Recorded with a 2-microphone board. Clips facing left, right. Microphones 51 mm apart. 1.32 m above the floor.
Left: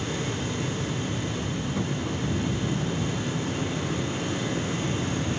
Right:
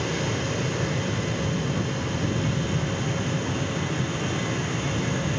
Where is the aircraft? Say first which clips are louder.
Right 3 dB; 70° right (ahead or behind).